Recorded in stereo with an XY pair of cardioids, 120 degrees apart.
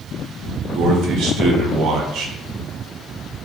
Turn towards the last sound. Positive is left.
turn(degrees=-70)